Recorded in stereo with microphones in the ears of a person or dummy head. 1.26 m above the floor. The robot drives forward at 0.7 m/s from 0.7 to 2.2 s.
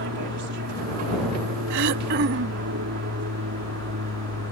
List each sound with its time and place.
0.0 s an aircraft: 60° right (ahead or behind)
1.7 s throat clearing: 65° right (ahead or behind); by 2.7 s 55° right (ahead or behind)